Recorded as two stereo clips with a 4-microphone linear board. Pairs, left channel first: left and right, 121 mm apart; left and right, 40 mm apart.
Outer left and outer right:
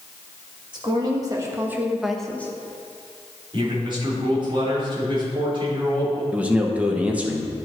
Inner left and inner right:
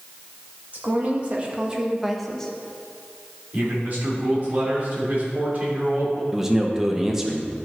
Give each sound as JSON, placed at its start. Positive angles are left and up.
{"t": 0.7, "sound": "a woman speaking", "side_deg": -40, "distance_m": 1.8}
{"t": 3.5, "sound": "a man speaking", "side_deg": -40, "distance_m": 3.0}
{"t": 6.3, "sound": "a man speaking", "side_deg": -10, "distance_m": 1.1}